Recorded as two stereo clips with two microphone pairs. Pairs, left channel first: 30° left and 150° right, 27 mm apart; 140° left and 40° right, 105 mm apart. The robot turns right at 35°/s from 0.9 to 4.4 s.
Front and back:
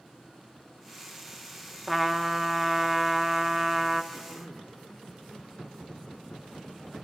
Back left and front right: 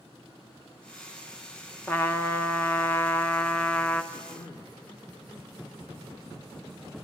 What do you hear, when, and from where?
1.9 s a trumpet: 125° left, 0.5 m; by 4.0 s 160° right, 0.5 m
4.1 s throat clearing: straight behind, 1.7 m; by 4.8 s 170° right, 1.7 m